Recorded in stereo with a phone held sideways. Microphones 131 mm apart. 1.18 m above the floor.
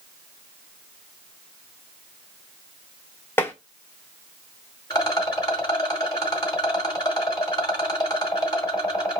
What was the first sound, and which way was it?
Tapping, 20° left (ahead or behind).